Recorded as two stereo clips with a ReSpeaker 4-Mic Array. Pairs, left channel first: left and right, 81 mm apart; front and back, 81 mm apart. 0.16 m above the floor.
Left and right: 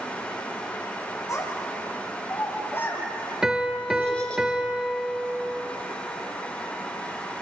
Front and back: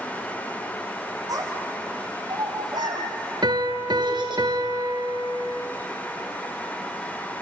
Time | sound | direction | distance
1.3 | a child speaking | 140° left | 6 m
3.4 | a piano | 170° right | 1.4 m